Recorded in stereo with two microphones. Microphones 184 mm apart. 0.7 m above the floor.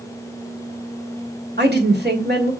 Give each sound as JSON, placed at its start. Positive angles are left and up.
{"t": 1.6, "sound": "a woman speaking", "side_deg": -70, "distance_m": 1.9}